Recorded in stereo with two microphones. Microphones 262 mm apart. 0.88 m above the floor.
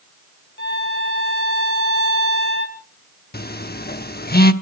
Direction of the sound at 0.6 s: 40° left (ahead or behind).